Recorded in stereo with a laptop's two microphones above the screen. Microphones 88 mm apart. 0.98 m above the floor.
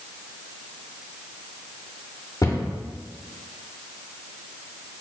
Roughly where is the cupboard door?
Left.